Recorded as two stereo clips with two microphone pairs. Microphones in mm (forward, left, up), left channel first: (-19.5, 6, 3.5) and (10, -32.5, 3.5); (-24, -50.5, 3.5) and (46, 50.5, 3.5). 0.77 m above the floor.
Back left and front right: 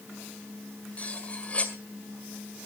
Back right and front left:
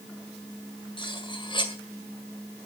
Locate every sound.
1.0 s cutlery clinking: 170° right, 1.9 m